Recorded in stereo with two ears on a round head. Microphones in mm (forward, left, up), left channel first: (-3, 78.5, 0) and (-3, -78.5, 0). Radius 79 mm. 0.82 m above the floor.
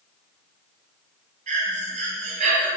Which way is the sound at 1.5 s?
40° right (ahead or behind).